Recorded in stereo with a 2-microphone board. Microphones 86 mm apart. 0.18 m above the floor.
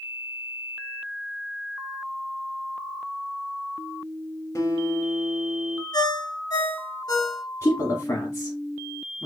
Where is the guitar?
40° left (ahead or behind), 0.8 m.